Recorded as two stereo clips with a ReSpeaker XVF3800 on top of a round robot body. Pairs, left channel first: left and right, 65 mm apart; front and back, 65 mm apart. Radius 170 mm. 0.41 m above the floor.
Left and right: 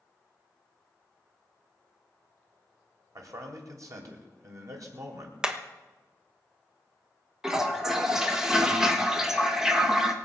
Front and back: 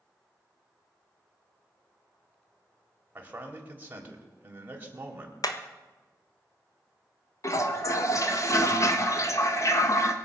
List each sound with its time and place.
3.1 s a man speaking: 120° right, 3.5 m
5.4 s hammering: 10° right, 1.5 m
7.4 s a toilet flushing: 10° right, 1.9 m